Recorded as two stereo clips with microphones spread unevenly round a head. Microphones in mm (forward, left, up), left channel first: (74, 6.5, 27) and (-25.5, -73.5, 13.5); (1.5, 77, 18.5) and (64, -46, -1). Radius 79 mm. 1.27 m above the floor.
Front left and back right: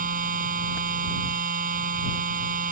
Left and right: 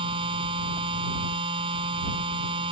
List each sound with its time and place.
0.0 s a machine running: 125° right